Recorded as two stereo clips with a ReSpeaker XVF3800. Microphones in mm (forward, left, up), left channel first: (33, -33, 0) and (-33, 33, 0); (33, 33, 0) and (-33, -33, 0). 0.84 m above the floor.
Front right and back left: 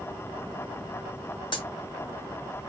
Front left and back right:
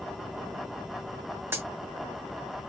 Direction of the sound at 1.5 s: 70° right.